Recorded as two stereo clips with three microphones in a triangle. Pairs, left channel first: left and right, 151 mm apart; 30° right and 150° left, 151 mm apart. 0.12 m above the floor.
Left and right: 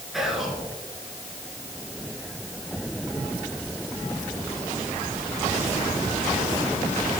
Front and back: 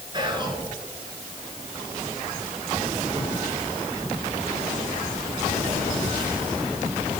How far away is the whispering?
About 1.3 m.